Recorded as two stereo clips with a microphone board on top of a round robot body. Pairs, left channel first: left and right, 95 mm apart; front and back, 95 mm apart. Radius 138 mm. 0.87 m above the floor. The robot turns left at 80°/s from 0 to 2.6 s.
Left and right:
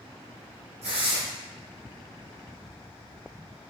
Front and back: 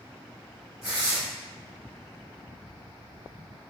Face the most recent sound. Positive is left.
turn(degrees=125)